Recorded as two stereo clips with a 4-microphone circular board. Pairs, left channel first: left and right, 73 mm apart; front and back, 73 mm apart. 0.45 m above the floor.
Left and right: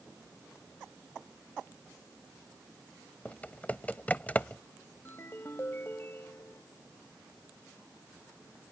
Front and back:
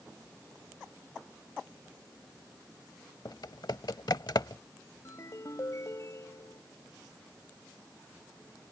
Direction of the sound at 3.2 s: 20° left.